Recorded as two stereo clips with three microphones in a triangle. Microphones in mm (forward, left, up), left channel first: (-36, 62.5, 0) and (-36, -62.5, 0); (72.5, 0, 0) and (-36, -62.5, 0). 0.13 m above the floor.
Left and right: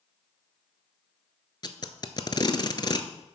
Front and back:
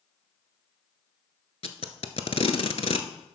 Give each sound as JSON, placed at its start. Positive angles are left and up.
{"t": 1.6, "sound": "tape being pulled", "azimuth_deg": 45, "distance_m": 0.6}